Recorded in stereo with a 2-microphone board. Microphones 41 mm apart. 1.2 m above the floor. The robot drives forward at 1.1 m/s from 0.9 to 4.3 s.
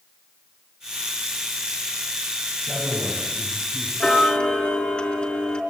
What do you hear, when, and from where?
2.6 s a man speaking: centre (ahead or behind), 8.5 m
4.0 s ticking: 25° left (ahead or behind), 4 m